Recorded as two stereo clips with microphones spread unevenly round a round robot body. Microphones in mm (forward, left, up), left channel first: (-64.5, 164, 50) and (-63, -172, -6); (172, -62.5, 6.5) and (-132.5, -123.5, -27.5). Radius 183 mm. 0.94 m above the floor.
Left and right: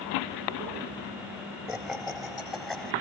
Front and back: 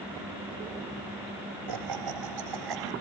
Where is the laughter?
Straight behind.